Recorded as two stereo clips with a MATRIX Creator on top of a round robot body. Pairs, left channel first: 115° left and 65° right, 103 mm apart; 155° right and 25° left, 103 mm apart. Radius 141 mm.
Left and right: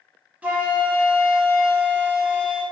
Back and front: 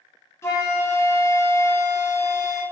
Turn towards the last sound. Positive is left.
turn(degrees=-125)